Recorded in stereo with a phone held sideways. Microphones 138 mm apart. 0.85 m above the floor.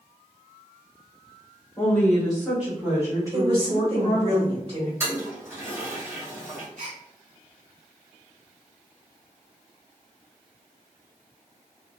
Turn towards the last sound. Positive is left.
turn(degrees=-65)  # may be behind; listen again after turning